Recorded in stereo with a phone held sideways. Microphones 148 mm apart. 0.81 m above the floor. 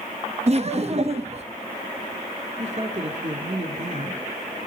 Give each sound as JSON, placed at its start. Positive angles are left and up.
{"t": 0.5, "sound": "laughter", "side_deg": -45, "distance_m": 0.8}
{"t": 2.6, "sound": "a woman speaking", "side_deg": -50, "distance_m": 2.0}